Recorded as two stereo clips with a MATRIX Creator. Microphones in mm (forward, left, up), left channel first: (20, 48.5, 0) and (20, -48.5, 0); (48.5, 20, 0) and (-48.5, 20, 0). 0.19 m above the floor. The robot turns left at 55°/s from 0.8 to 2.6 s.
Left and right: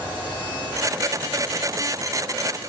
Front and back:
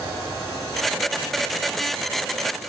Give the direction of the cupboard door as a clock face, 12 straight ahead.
I don't hear a cupboard door.